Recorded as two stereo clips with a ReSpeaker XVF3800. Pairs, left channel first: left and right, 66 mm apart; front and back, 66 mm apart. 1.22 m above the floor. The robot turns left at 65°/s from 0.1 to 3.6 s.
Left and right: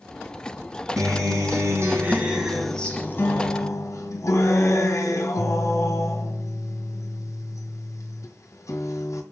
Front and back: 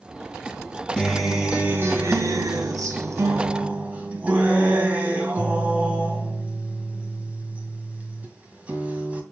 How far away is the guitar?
About 2 m.